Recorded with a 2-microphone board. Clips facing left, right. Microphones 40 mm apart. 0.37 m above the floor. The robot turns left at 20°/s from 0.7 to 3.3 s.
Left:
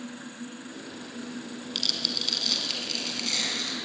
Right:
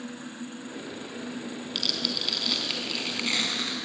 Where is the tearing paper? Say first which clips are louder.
Right 1 dB; 5° right, 4 m; by 3.8 s 40° right, 4 m.